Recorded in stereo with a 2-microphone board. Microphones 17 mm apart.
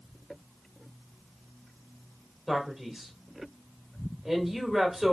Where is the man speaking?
15° right (ahead or behind), 1.7 m.